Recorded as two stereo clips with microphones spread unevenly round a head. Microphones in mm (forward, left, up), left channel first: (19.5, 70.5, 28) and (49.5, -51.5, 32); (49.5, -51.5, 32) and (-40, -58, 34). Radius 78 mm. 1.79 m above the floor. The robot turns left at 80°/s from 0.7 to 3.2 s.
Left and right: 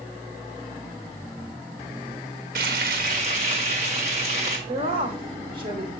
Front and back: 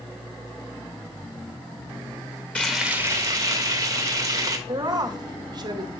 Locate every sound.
2.5 s frying: 70° right, 1.3 m; by 4.6 s 125° right, 1.3 m
4.7 s a woman speaking: 135° right, 1.1 m